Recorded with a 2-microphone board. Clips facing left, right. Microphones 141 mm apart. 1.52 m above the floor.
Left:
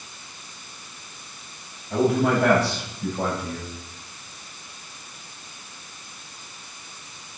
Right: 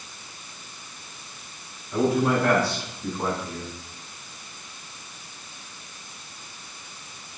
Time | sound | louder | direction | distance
1.9 | a man speaking | left 1 dB | 80° left | 9.5 m